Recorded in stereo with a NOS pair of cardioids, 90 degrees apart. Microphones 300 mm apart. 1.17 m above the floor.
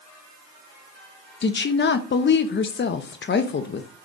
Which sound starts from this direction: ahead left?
A woman speaking, at 1.4 s.